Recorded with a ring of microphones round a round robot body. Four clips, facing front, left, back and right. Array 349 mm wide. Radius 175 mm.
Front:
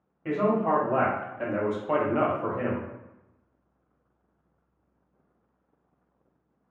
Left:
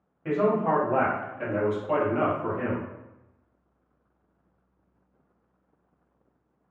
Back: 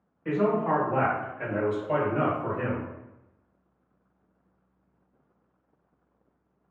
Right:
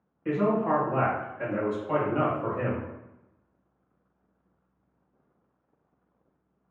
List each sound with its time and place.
0.2 s a man speaking: 45° left, 1.5 m; by 2.9 s 60° right, 0.8 m